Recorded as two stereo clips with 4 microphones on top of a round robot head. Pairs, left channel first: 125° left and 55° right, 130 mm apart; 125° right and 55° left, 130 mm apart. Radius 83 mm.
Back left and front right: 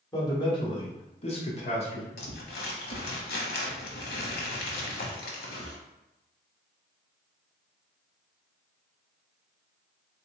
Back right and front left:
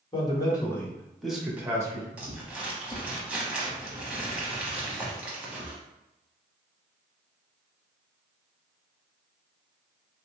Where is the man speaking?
175° right, 1.3 m; by 2.1 s 105° left, 1.2 m.